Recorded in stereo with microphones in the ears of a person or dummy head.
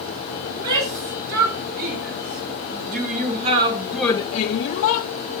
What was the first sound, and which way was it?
A shout, 55° right (ahead or behind).